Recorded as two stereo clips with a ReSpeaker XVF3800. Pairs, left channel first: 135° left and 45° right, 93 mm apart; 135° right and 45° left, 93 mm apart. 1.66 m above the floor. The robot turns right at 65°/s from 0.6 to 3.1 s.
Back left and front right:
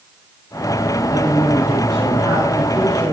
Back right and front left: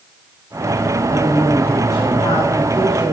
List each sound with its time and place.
1.1 s a man speaking: 120° left, 9.5 m; by 3.1 s 110° right, 9.5 m